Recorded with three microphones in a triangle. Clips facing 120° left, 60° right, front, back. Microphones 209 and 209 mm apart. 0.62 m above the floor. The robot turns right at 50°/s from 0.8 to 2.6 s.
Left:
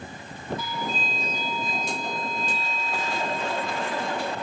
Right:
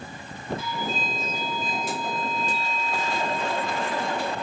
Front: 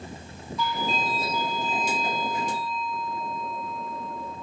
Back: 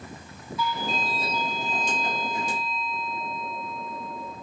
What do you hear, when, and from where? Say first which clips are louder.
0.6 s a doorbell: right 1 dB, front 1 dB; 95° right, 1.9 m; by 4.3 s 5° right, 1.9 m